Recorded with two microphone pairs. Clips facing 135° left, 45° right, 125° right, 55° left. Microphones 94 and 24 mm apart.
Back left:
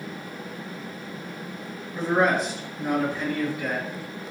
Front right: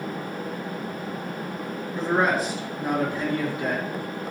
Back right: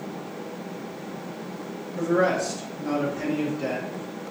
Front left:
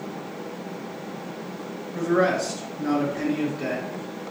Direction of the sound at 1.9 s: 50° left.